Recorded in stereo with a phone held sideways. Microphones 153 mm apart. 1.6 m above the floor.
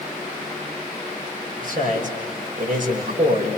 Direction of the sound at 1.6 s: 60° right (ahead or behind).